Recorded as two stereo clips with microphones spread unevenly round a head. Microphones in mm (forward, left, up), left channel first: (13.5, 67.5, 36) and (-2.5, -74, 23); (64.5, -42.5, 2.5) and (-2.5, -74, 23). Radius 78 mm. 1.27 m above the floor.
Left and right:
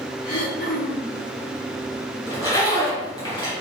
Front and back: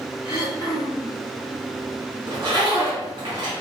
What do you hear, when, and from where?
0.2 s throat clearing: 95° left, 3.5 m
2.3 s a zipper: 145° left, 2.5 m